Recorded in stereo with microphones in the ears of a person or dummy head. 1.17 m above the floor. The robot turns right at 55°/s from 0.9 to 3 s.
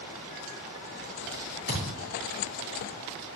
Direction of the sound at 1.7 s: 40° right (ahead or behind).